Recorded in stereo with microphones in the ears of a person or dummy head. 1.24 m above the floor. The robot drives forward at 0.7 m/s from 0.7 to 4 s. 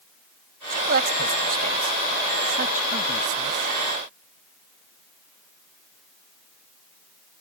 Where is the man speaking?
60° right (ahead or behind); by 3.7 s 45° right (ahead or behind).